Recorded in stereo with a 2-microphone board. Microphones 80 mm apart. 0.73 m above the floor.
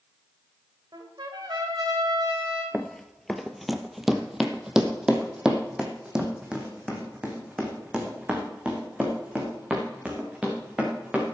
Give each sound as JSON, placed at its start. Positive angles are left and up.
{"t": 0.9, "sound": "a trumpet", "side_deg": -60, "distance_m": 2.5}
{"t": 2.7, "sound": "running footsteps", "side_deg": 10, "distance_m": 0.8}